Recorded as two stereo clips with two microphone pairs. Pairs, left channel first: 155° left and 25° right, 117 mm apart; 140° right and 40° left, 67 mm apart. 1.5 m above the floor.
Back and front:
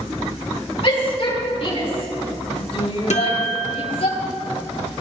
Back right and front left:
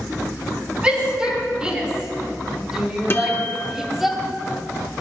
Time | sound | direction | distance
0.8 | a shout | 115° left | 6 m
3.1 | a guitar | 165° left | 0.9 m